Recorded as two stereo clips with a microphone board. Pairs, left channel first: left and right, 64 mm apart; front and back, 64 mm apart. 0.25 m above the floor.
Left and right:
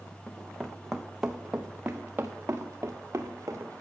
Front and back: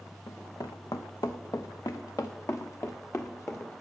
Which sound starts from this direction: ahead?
Running footsteps, at 0.3 s.